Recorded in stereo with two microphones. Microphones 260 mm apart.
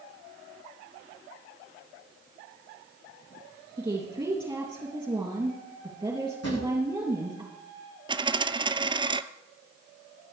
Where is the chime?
I don't hear a chime.